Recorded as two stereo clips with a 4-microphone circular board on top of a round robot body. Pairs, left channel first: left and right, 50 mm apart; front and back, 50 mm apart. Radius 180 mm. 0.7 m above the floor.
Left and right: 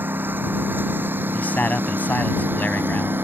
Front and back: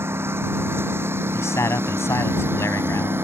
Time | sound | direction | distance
0.0 | a lawn mower | 140° right | ?
1.3 | a man speaking | 30° left | ?